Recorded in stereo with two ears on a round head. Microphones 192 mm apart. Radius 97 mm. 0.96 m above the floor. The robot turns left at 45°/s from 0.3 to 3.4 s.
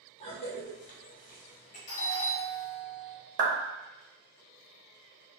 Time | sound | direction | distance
0.2 | a cough | 30° left (ahead or behind) | 0.9 m
1.9 | a doorbell | 120° left | 1.7 m
3.4 | a clap | 40° right (ahead or behind) | 0.7 m